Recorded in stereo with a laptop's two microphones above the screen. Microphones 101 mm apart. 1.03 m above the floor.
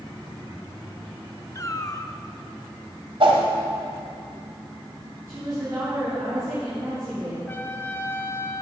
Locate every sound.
1.6 s a cat meowing: 30° left (ahead or behind), 0.6 m
3.2 s a whoosh: 65° right (ahead or behind), 1.6 m
5.3 s a woman speaking: 35° right (ahead or behind), 2.5 m
7.5 s a trumpet: 20° left (ahead or behind), 0.8 m